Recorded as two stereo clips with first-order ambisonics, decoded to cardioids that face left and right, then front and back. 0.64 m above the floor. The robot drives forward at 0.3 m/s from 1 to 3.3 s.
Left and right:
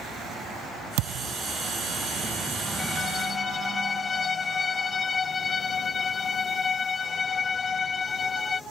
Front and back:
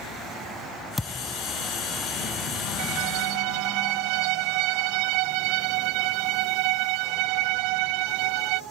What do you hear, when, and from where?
1.0 s a thud: 80° right; by 1.4 s 85° right
2.8 s a violin: 165° left